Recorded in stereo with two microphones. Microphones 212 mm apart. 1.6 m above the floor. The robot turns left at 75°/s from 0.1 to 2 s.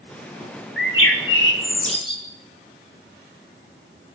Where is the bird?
120° left, 3.5 m; by 2.2 s 25° left, 3.5 m.